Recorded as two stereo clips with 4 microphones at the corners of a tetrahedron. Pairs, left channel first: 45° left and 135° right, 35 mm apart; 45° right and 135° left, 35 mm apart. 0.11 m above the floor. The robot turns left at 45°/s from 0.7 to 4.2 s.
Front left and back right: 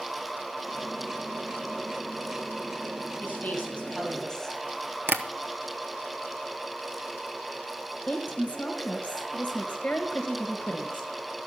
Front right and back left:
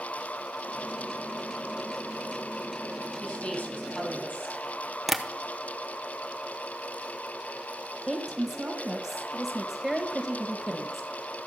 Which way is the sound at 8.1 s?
65° left.